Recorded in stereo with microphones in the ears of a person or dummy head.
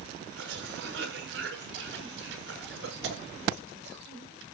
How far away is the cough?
About 6 m.